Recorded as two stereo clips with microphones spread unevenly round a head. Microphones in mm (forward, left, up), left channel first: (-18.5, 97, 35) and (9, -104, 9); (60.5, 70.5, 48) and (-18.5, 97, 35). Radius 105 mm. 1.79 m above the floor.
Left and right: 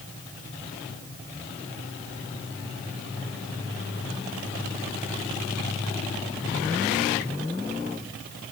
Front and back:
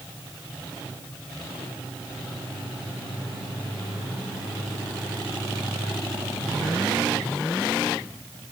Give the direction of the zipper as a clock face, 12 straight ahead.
No zipper in this recording.